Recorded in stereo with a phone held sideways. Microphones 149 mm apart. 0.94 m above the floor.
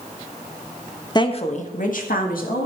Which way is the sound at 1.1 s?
30° left (ahead or behind).